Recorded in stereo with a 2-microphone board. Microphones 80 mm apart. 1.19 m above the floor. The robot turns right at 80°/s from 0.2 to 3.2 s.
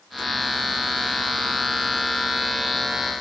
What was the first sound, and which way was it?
Only background noise.